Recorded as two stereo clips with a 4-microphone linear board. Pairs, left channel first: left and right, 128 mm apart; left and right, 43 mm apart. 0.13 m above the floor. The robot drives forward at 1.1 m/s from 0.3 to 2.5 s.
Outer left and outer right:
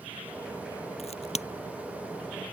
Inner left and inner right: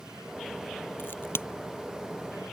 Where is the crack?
55° left (ahead or behind); by 1.5 s 60° left (ahead or behind).